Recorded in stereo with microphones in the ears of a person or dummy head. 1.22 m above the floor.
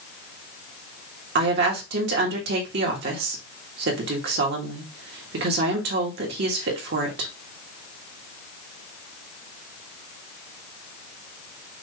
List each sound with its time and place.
1.4 s a woman speaking: 60° right (ahead or behind), 1.7 m